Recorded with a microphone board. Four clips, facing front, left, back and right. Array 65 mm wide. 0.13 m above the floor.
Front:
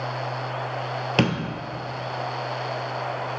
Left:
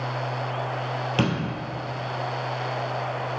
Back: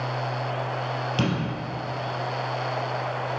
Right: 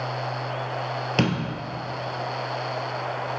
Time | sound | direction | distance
1.2 | a door slam | 20° right | 1.6 m